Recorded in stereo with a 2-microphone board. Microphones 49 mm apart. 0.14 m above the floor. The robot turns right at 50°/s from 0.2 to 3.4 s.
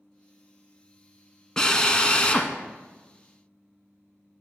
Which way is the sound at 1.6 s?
15° left (ahead or behind).